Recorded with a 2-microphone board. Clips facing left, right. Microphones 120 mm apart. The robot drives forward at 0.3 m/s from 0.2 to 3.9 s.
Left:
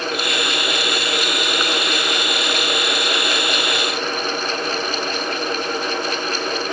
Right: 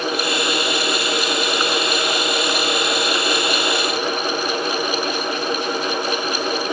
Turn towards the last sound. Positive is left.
No sound to turn to.